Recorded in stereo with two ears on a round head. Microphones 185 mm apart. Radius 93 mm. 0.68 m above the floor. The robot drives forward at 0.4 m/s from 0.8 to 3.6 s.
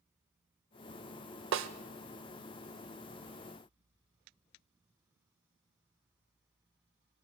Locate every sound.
1.5 s a snare drum: 65° right (ahead or behind), 0.7 m